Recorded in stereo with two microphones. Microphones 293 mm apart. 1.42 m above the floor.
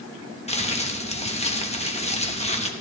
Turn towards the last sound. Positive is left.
turn(degrees=20)  # may be behind; listen again after turning